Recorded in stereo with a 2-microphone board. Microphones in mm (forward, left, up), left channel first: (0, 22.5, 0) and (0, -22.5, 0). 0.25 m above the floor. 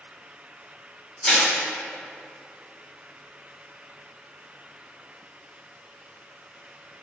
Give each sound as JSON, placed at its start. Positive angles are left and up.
{"t": 1.2, "sound": "crushing", "side_deg": 5, "distance_m": 1.8}